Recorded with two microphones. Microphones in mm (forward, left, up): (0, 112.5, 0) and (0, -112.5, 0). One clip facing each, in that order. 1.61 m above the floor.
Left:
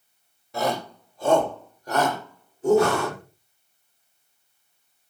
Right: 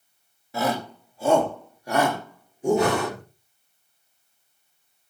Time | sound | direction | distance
0.5 | a shout | 5° right (ahead or behind) | 3.5 m
2.8 | breathing | 20° right (ahead or behind) | 2.5 m